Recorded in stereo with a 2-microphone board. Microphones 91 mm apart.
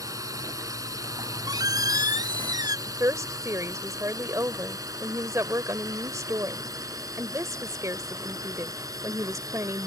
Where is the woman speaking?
35° right (ahead or behind).